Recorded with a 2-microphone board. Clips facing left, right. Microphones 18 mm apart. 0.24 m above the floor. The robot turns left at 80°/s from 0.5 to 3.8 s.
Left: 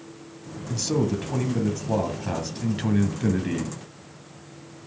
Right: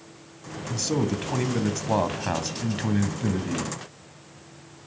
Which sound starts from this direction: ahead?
A man speaking, at 0.7 s.